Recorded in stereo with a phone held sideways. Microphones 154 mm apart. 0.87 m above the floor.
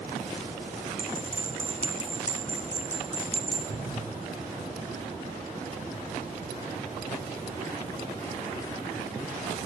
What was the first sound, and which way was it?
A bell, 45° right (ahead or behind).